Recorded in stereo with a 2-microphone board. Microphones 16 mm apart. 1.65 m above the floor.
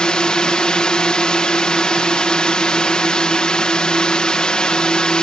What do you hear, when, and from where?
0.0 s a drone: 65° left (ahead or behind)